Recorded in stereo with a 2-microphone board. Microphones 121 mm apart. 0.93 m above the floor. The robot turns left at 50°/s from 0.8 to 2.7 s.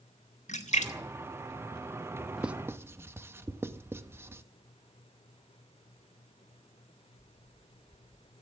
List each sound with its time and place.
0.5 s a splash: 75° left (ahead or behind), 1.8 m; by 0.9 s 80° left, 1.8 m
2.4 s writing: 5° right (ahead or behind), 0.7 m; by 4.4 s 20° right (ahead or behind), 0.7 m